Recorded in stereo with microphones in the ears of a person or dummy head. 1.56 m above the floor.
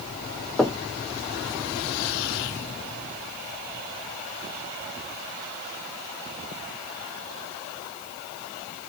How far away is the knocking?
About 0.6 m.